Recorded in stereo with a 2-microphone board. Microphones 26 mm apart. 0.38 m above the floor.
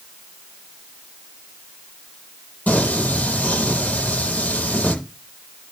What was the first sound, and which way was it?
Singing, 75° left (ahead or behind).